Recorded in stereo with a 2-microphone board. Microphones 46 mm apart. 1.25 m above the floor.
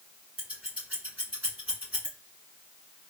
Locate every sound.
0.4 s scissors: 35° right (ahead or behind), 2.5 m